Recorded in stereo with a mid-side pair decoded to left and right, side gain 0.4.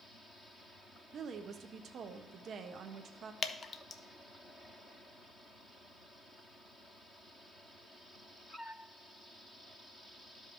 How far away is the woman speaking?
About 0.8 m.